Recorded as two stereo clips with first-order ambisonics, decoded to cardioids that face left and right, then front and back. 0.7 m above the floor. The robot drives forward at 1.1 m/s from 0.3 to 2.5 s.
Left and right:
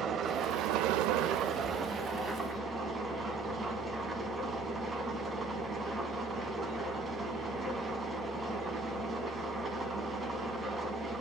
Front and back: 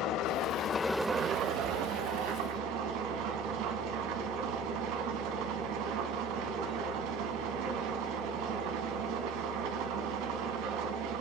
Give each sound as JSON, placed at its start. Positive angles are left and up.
{"t": 0.0, "sound": "an engine running", "azimuth_deg": -35, "distance_m": 0.9}